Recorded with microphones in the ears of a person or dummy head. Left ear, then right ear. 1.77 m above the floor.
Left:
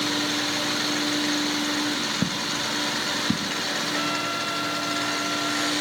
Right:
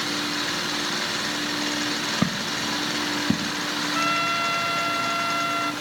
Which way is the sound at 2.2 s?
20° right (ahead or behind).